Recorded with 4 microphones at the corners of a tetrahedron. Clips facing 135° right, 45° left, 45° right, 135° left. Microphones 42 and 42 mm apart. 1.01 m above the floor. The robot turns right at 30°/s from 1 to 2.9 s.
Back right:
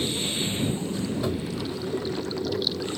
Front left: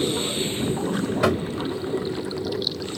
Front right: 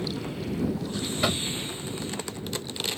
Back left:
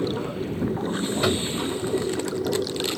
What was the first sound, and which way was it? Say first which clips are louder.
Running water: front left 4 dB, back left 5 dB; 85° left.